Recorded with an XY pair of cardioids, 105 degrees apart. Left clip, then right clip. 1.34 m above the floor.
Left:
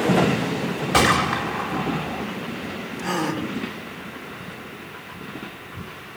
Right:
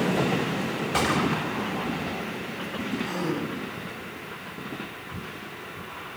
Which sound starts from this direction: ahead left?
A gunshot, at 0.9 s.